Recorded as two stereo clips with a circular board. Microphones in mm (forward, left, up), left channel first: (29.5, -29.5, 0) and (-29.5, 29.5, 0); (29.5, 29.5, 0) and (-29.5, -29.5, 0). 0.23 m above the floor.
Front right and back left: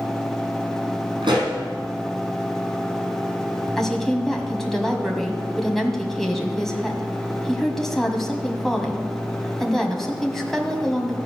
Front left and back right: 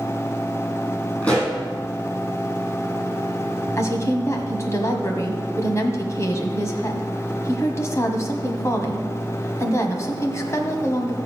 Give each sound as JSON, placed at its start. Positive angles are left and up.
{"t": 1.2, "sound": "a pop", "azimuth_deg": 115, "distance_m": 5.0}
{"t": 3.8, "sound": "a woman speaking", "azimuth_deg": 40, "distance_m": 1.6}